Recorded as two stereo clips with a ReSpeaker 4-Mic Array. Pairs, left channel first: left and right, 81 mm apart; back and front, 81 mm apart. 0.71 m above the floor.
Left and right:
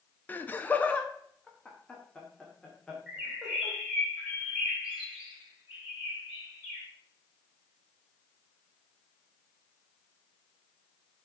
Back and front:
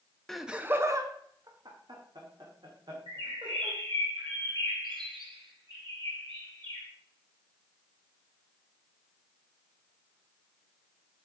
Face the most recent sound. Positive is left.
turn(degrees=-15)